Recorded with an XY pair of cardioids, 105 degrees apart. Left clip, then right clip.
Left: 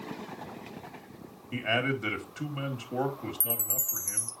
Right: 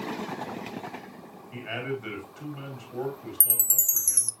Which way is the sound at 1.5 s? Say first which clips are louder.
Left 5 dB; 55° left.